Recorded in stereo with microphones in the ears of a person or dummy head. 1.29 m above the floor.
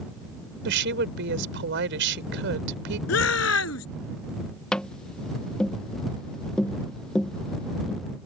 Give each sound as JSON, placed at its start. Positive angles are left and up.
{"t": 0.7, "sound": "a woman speaking", "side_deg": -65}
{"t": 3.1, "sound": "a shout", "side_deg": 80}
{"t": 4.7, "sound": "tapping", "side_deg": 5}